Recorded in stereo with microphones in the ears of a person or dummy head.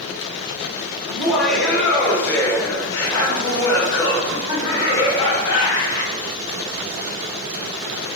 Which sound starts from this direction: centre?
Laughter, at 1.1 s.